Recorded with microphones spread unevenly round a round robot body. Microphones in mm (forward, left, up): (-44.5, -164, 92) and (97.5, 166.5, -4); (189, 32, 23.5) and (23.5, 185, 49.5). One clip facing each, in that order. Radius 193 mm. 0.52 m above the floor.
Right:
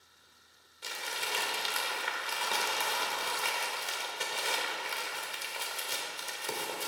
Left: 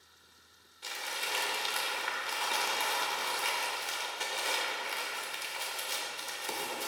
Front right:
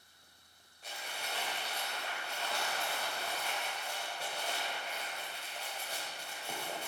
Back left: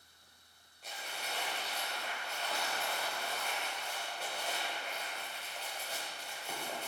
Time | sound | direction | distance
0.8 | crumpling | 130° right | 1.3 m